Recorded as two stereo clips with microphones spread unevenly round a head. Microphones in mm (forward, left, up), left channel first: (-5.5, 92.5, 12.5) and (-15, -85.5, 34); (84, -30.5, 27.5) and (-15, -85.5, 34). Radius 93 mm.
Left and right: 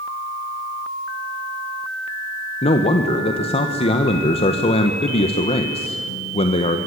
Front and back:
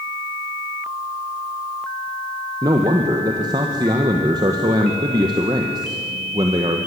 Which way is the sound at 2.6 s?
145° left.